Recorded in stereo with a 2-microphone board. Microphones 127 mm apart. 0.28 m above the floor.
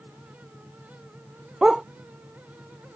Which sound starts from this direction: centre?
A dog barking, at 1.6 s.